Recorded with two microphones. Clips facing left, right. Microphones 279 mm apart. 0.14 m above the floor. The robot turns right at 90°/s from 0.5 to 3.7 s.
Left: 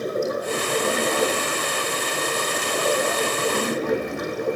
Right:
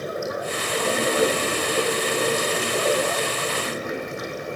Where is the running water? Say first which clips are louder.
Left 4 dB; 135° left, 3.5 m; by 4.6 s 65° left, 3.5 m.